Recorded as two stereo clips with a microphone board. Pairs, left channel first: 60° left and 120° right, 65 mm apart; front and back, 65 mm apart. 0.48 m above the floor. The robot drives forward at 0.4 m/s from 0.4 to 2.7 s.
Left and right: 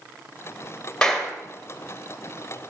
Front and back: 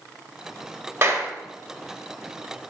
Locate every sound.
1.0 s a clap: 140° left, 1.8 m